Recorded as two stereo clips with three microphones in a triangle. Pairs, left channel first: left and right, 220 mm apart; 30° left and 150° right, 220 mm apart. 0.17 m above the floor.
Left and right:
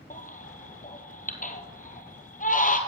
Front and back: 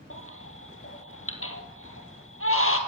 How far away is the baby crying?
About 1.9 m.